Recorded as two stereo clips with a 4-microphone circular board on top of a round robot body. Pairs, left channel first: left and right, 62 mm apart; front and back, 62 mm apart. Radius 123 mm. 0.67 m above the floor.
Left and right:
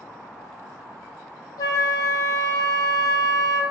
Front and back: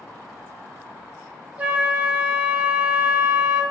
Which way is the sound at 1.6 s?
115° left.